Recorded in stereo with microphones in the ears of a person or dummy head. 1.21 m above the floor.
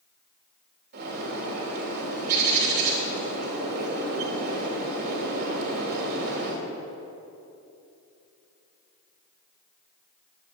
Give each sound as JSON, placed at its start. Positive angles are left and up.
{"t": 0.9, "sound": "a bird", "side_deg": -55, "distance_m": 3.0}